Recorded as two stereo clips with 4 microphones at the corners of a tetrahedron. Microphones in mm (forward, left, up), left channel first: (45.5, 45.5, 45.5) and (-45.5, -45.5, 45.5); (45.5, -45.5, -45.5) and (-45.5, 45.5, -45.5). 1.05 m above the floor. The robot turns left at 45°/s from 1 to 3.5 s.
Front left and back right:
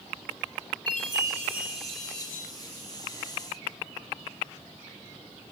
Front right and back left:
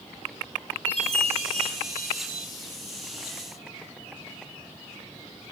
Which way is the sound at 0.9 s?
175° left.